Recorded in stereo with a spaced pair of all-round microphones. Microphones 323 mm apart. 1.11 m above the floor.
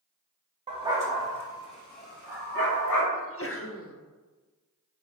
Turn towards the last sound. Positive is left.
turn(degrees=40)  # may be behind; listen again after turning